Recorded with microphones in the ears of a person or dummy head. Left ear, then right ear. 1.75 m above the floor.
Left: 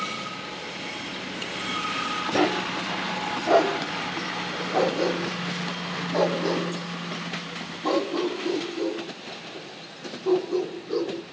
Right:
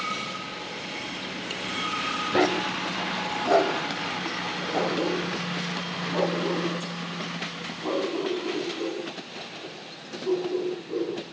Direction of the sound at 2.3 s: 10° right (ahead or behind).